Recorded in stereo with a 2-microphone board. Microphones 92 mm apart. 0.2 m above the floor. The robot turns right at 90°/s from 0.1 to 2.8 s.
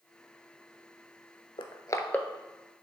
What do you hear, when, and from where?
1.6 s crushing: 65° left (ahead or behind), 0.7 m; by 2.3 s 5° left (ahead or behind), 0.7 m